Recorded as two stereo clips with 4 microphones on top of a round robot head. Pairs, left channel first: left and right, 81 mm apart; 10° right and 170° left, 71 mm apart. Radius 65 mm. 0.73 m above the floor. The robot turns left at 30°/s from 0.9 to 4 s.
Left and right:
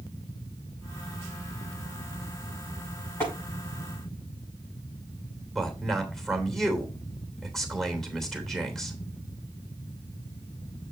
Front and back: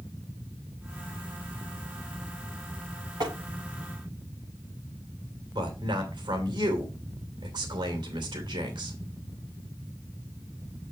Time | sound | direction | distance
3.2 | tapping | 150° left | 6.5 m
5.5 | a man speaking | 175° left | 3 m